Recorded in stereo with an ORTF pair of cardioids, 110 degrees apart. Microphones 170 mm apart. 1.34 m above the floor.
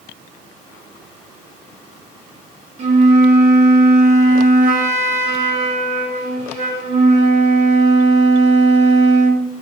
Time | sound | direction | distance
2.8 | a flute | 45° right | 2 m